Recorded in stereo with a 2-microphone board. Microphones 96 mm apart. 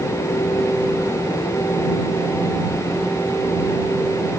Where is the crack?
No crack in this recording.